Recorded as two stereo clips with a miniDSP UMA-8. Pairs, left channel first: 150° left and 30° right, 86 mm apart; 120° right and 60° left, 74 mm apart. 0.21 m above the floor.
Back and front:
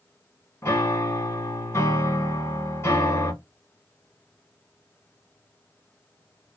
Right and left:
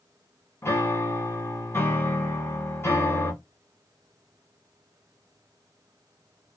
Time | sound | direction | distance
0.6 | a piano | 160° right | 1.2 m